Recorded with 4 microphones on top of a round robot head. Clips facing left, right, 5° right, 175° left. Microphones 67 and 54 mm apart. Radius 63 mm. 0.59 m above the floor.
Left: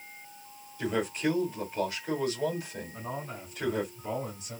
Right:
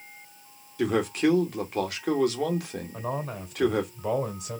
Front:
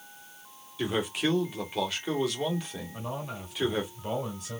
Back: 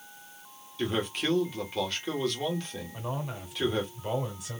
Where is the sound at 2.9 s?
100° right, 2.5 m.